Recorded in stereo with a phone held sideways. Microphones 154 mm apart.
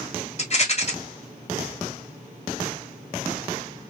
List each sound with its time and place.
0.4 s a rattle: 45° left (ahead or behind), 1.1 m